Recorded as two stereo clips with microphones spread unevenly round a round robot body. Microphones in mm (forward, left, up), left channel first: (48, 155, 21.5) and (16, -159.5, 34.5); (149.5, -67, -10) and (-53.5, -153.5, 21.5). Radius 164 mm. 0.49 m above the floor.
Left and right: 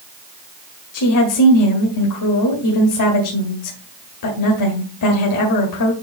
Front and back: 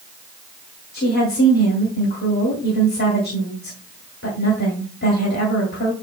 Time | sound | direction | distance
0.9 | a woman speaking | 70° left | 1.9 m